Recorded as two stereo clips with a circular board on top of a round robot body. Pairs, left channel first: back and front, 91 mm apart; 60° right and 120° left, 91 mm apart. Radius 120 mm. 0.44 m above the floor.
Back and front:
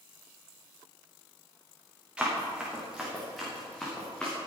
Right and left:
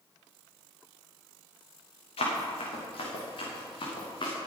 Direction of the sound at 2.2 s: 80° right.